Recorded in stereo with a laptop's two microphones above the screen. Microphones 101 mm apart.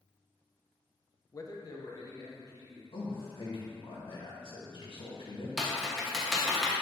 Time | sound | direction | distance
1.3 | a man speaking | 35° left (ahead or behind) | 0.7 m
2.9 | a man speaking | 55° left (ahead or behind) | 1.8 m
5.6 | typing on a keyboard | 5° right (ahead or behind) | 0.9 m